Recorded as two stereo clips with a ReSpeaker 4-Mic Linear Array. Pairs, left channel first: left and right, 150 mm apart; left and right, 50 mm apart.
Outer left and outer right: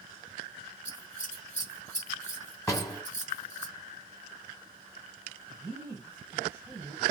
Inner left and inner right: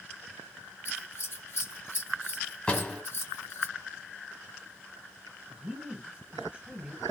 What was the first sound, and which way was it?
Scissors, 45° left (ahead or behind).